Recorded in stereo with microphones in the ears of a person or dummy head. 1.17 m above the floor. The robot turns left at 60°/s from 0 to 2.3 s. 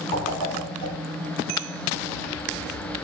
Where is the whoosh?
55° left (ahead or behind), 1.6 m; by 0.9 s 70° left (ahead or behind), 1.6 m.